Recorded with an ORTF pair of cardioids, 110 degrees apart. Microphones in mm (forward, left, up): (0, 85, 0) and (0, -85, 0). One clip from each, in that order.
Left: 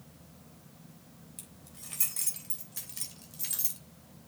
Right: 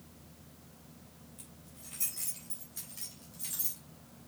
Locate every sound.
1.4 s keys jangling: 60° left, 3.5 m; by 3.8 s 40° left, 3 m